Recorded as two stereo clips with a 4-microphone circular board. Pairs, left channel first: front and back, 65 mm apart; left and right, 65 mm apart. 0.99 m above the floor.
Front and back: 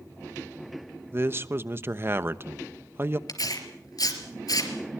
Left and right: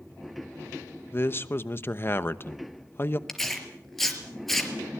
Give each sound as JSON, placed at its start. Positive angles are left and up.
{"t": 1.1, "sound": "a man speaking", "azimuth_deg": 135, "distance_m": 1.0}
{"t": 3.3, "sound": "tearing paper", "azimuth_deg": 5, "distance_m": 3.5}